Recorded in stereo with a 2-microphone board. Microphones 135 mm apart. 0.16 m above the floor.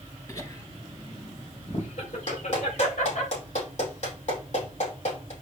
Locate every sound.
0.3 s laughter: 20° left (ahead or behind), 3 m; by 3.3 s 70° left (ahead or behind), 4 m
2.3 s a clap: 60° left (ahead or behind), 5 m